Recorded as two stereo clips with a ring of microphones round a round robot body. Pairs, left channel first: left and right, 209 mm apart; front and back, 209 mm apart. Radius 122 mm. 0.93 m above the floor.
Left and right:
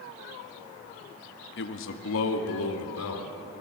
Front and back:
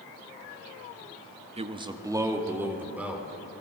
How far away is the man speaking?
About 1.3 m.